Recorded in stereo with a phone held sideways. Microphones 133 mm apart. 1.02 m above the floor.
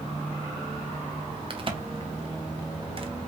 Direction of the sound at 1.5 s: 40° right (ahead or behind).